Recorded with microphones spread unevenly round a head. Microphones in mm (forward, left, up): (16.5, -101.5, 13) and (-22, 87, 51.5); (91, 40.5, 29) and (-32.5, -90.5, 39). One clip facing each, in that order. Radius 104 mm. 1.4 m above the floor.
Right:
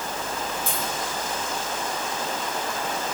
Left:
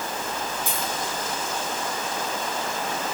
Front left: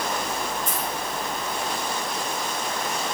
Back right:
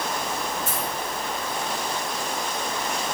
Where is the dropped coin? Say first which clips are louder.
Even, even; 140° left, 4.5 m.